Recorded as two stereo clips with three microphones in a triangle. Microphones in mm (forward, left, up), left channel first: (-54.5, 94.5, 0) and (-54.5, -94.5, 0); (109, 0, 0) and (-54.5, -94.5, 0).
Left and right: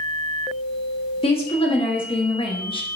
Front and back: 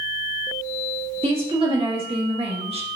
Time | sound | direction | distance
1.2 | a woman speaking | 150° left | 2 m